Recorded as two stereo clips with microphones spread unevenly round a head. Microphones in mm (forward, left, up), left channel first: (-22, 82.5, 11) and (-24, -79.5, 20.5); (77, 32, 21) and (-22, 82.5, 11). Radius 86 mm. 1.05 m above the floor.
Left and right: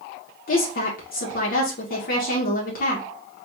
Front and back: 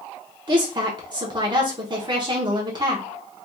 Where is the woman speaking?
115° left, 1.0 m.